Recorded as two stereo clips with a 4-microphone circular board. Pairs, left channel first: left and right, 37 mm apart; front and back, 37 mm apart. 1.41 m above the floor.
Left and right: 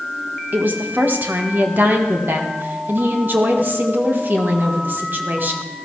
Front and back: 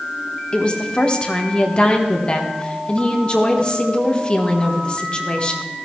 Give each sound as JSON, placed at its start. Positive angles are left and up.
{"t": 0.5, "sound": "a woman speaking", "azimuth_deg": -60, "distance_m": 1.6}